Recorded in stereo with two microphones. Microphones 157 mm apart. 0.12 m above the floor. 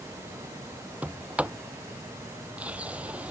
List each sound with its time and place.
1.0 s a sliding door: 10° right (ahead or behind)